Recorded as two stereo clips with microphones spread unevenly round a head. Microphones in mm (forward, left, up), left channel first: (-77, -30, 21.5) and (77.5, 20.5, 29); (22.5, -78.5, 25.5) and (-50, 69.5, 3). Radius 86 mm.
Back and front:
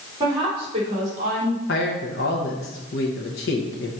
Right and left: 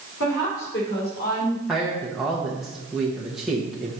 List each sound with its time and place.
0.2 s a woman speaking: 45° right, 3 m; by 1.6 s 10° right, 2.5 m
1.7 s a man speaking: 155° right, 1.1 m